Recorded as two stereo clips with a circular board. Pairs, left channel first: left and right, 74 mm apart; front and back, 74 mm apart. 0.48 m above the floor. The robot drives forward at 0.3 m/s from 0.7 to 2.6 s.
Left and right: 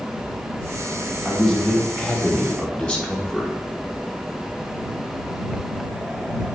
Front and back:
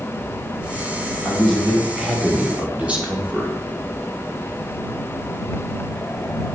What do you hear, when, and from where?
1.2 s a man speaking: 45° left, 0.7 m; by 3.5 s 145° left, 0.7 m